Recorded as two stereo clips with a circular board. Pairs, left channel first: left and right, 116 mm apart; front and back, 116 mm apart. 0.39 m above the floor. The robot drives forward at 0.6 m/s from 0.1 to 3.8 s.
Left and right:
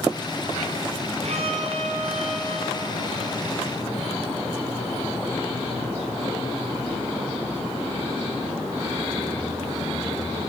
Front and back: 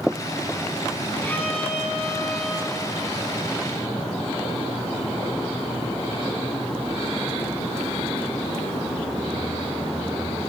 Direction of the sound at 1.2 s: 75° right.